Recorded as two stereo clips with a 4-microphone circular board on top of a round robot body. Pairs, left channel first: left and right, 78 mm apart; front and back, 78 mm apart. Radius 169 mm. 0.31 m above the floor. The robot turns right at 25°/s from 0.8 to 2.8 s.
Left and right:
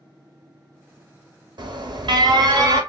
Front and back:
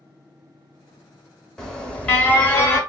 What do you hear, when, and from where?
1.6 s an alarm: 85° right, 1.5 m; by 2.8 s 55° right, 1.5 m